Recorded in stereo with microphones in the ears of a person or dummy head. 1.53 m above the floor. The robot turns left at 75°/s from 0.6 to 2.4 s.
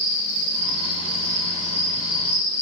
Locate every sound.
0.0 s an insect: 65° right, 1.3 m; by 2.6 s 160° left, 1.3 m